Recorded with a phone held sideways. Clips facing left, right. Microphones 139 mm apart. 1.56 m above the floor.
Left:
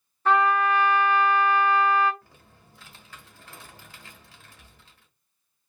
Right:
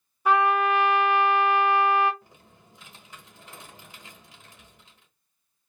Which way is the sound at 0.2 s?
10° right (ahead or behind).